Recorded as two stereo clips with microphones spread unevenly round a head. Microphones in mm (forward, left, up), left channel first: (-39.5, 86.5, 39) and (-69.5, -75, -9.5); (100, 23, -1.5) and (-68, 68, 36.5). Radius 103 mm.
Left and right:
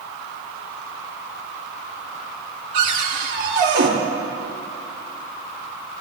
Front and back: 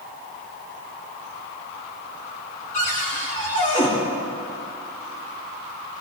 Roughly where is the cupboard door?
Right.